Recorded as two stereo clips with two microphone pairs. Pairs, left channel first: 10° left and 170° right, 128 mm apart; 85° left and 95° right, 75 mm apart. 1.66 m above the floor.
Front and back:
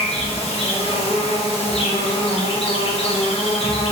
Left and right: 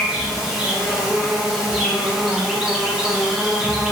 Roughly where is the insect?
Ahead.